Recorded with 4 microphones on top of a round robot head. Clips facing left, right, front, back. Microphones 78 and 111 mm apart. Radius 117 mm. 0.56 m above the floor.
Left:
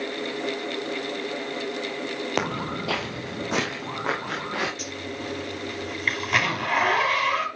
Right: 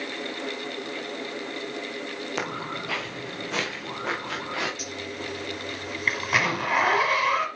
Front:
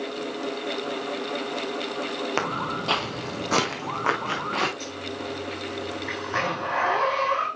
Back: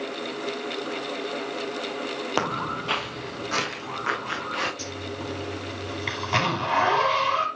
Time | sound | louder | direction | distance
2.4 | footsteps | left 4 dB, back 3 dB | 105° left | 0.7 m
4.8 | a zipper | left 1 dB, even | straight behind | 4 m